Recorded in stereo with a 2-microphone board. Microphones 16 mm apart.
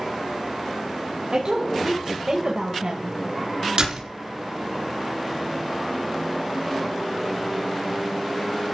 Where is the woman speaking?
65° right (ahead or behind), 3 m; by 3.2 s 60° right (ahead or behind), 3.5 m.